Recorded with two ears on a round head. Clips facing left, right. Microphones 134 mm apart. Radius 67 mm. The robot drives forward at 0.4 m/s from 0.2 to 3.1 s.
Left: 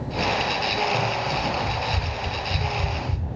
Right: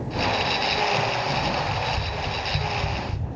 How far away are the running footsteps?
About 1.4 m.